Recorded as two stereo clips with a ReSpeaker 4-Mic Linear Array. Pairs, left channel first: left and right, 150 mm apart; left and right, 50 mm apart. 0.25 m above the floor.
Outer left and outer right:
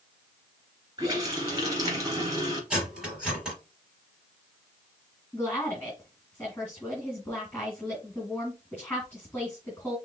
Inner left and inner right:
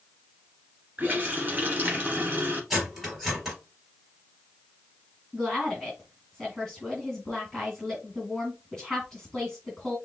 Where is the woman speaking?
10° left (ahead or behind), 2 m.